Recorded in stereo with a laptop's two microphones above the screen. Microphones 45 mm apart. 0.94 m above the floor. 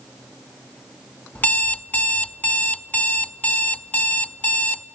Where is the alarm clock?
30° left (ahead or behind), 0.6 m.